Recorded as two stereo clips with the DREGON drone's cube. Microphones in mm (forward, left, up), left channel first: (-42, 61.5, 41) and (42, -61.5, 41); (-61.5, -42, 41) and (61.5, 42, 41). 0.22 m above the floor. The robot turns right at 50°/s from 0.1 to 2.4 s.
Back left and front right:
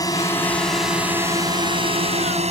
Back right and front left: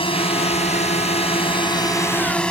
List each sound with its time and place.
0.0 s a drone: straight behind; by 2.5 s 65° right